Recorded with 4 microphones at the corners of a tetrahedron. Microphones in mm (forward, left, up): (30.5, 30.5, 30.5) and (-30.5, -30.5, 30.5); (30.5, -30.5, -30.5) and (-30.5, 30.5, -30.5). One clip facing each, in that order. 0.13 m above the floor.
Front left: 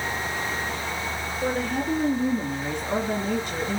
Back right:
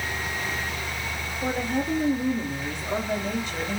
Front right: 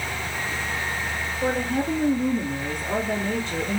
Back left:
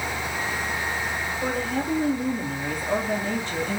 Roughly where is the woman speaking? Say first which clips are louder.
Even, front right 4 dB; ahead left.